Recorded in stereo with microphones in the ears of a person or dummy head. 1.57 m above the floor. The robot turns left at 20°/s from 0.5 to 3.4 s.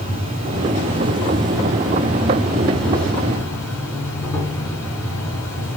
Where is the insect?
135° right, 1.0 m; by 5.8 s 165° left, 1.0 m.